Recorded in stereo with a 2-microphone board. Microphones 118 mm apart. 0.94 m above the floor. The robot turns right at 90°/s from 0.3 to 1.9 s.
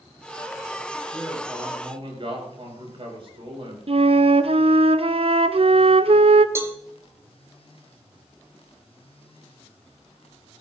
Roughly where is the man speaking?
Behind.